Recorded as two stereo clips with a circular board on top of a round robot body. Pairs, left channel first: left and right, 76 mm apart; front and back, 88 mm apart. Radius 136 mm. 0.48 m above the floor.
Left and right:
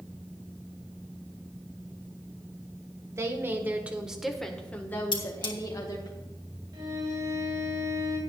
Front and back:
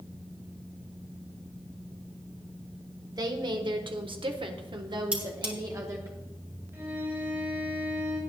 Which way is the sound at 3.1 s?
140° right.